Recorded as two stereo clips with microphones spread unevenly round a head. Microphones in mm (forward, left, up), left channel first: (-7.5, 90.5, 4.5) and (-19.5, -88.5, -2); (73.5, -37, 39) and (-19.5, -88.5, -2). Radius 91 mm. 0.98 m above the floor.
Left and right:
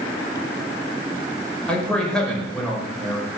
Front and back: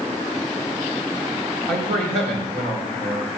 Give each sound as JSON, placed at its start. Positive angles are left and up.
{"t": 1.7, "sound": "a man speaking", "azimuth_deg": 170, "distance_m": 5.0}